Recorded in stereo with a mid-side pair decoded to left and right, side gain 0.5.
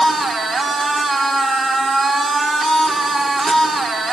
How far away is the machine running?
About 4.5 m.